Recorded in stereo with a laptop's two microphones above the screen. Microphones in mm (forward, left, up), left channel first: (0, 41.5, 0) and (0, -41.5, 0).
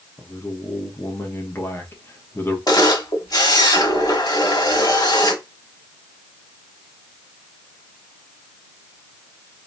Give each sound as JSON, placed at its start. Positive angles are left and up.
{"t": 0.2, "sound": "a man speaking", "side_deg": 25, "distance_m": 1.1}
{"t": 2.7, "sound": "a camera shutter", "side_deg": 50, "distance_m": 1.4}